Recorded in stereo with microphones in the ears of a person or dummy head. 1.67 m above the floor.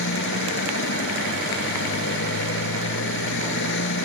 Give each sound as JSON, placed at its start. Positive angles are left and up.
{"t": 0.0, "sound": "a motorcycle", "side_deg": 65}